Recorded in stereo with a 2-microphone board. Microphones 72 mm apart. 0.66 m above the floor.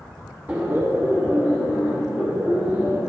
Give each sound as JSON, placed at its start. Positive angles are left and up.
{"t": 0.5, "sound": "laughter", "side_deg": -20, "distance_m": 0.9}